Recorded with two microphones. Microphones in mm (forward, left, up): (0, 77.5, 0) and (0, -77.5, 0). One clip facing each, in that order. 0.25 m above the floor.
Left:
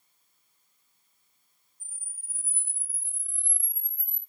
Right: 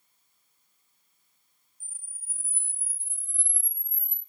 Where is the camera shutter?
10° right (ahead or behind), 1.7 m.